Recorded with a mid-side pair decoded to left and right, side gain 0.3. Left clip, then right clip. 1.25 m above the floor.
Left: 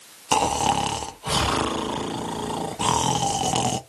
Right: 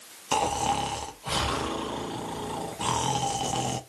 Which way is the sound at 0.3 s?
65° left.